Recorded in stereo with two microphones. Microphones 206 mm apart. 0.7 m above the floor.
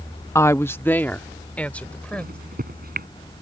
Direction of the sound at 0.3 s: 15° left (ahead or behind).